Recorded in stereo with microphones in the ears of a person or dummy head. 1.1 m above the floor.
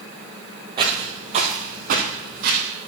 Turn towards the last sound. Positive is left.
turn(degrees=-55)  # may be behind; listen again after turning